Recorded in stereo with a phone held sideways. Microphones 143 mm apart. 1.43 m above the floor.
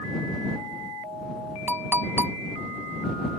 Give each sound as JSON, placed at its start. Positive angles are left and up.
{"t": 1.7, "sound": "a clink", "side_deg": -15}